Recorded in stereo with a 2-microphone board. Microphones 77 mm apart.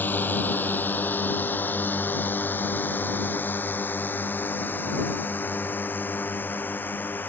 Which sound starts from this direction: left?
A drone, at 0.0 s.